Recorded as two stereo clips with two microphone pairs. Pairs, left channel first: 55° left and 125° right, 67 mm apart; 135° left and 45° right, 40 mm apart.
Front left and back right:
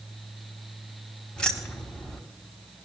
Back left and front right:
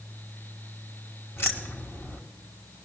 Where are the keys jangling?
130° left, 1.7 m.